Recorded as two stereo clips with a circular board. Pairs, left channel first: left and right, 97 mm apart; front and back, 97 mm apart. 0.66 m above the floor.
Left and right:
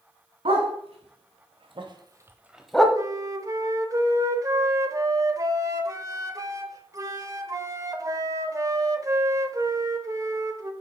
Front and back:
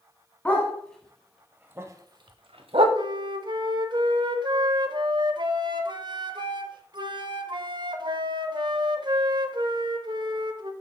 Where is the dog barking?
75° right, 1.7 m; by 2.9 s 175° left, 1.0 m.